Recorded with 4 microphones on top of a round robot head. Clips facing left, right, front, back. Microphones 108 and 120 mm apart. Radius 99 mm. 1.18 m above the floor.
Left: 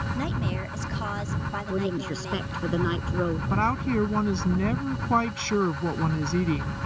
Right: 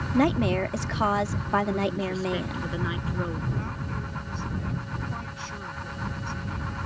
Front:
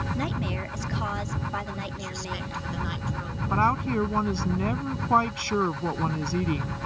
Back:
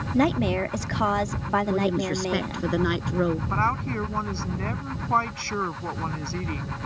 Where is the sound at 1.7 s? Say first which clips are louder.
Right 1 dB, back 12 dB; 160° left.